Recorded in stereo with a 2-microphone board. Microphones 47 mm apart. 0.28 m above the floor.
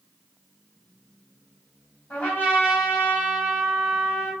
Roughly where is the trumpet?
Left.